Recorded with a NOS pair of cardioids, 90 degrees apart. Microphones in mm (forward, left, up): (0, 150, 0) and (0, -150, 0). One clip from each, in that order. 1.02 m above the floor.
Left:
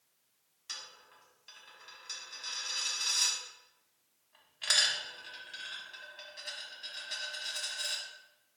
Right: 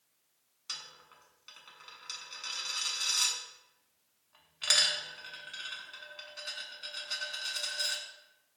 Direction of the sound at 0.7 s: 10° right.